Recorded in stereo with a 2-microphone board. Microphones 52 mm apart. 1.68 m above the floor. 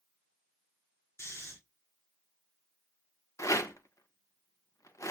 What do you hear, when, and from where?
1.2 s snoring: 55° left (ahead or behind), 5.5 m
3.4 s a rattle: 80° left, 1.0 m